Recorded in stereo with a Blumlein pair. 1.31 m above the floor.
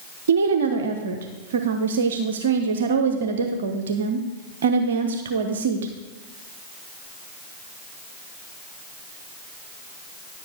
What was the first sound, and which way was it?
A woman speaking, 65° right.